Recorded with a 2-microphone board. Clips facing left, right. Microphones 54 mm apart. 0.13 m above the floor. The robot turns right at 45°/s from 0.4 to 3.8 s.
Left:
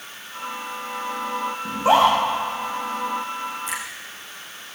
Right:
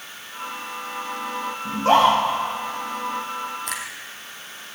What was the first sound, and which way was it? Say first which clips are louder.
A scream: even; 25° left (ahead or behind).